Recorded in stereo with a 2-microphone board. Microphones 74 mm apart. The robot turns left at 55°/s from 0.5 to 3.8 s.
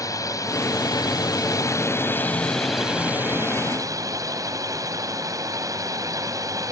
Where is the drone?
120° left; by 6.7 s 60° right.